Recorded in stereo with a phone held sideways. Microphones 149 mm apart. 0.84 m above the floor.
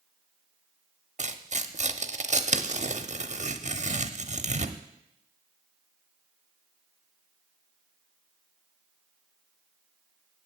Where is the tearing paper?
55° right (ahead or behind), 0.7 m.